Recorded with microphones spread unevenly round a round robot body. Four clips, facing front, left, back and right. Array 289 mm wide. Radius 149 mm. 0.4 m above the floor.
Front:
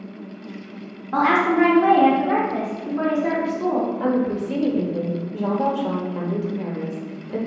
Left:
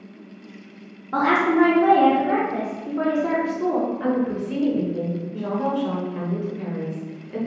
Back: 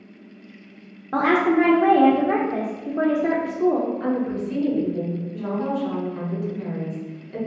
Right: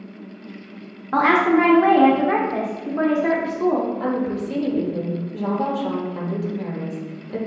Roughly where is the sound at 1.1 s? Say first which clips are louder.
Right 2 dB, even; behind right.